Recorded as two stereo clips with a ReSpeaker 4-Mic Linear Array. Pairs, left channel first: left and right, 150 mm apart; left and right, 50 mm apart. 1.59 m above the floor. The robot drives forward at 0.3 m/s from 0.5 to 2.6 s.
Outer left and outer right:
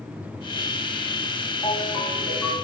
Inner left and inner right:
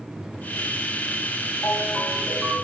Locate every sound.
1.6 s a ringtone: 25° left (ahead or behind), 1.4 m; by 2.5 s 30° left (ahead or behind), 1.2 m